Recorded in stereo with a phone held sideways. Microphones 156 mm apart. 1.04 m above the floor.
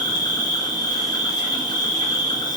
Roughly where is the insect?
Left.